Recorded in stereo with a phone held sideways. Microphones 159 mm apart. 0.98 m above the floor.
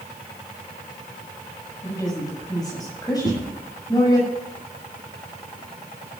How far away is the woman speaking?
About 7 m.